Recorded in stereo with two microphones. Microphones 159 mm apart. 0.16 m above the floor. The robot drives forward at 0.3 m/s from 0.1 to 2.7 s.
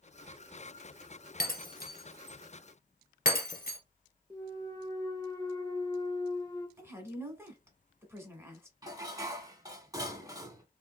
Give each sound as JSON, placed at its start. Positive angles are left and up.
{"t": 1.4, "sound": "breaking glass", "side_deg": 65, "distance_m": 1.0}
{"t": 4.3, "sound": "a clunk", "side_deg": 20, "distance_m": 0.6}
{"t": 6.8, "sound": "a woman speaking", "side_deg": -15, "distance_m": 1.0}
{"t": 8.8, "sound": "dishes clattering", "side_deg": -20, "distance_m": 0.7}